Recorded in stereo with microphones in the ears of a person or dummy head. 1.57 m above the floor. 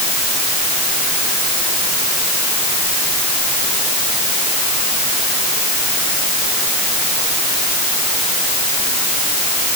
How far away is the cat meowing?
I don't hear a cat meowing.